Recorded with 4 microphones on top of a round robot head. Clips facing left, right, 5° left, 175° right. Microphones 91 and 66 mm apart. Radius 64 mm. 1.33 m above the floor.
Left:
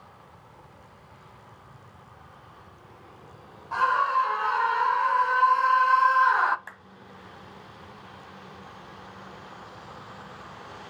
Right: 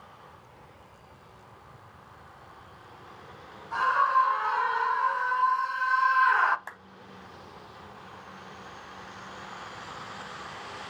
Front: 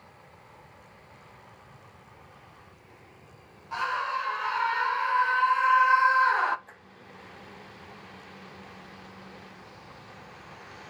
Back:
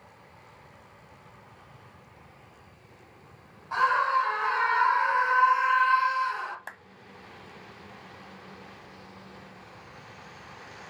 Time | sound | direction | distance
3.7 | a scream | 130° left | 3 m
6.7 | a clap | 165° right | 0.7 m